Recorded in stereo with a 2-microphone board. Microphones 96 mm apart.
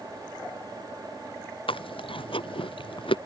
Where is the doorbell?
I don't hear a doorbell.